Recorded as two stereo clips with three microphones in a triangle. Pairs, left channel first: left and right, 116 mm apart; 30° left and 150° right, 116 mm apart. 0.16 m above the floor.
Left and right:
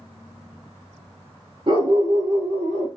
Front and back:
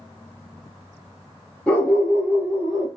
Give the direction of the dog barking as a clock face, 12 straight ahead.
2 o'clock.